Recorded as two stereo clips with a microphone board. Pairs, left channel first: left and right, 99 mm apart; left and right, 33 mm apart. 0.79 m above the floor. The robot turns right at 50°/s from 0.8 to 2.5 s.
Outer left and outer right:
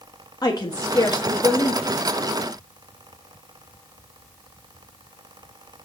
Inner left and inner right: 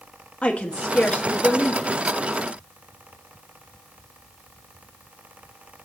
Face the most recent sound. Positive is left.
turn(degrees=155)